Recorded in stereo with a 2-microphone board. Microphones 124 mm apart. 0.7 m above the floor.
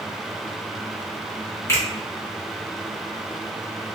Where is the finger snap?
20° left (ahead or behind), 1.5 m.